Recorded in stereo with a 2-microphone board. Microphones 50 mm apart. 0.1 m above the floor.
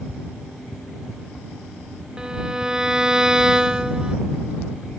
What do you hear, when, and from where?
2.2 s a violin: 15° right (ahead or behind)